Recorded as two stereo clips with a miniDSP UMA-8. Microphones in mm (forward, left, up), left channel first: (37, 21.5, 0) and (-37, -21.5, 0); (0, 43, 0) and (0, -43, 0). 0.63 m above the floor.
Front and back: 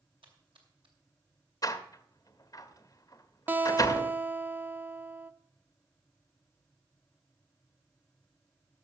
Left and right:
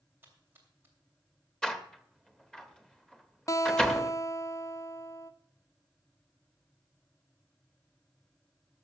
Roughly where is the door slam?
Ahead.